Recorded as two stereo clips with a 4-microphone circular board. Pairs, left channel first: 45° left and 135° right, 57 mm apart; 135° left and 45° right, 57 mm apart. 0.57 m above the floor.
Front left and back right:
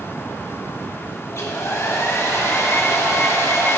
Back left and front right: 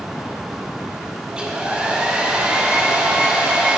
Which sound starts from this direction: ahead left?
A hair dryer, at 1.3 s.